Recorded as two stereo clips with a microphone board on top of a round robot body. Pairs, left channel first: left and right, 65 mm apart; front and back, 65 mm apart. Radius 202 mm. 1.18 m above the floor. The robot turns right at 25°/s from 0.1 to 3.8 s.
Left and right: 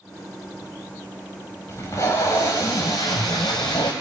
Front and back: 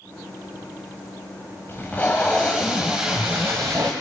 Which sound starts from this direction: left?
Tape being pulled, at 1.7 s.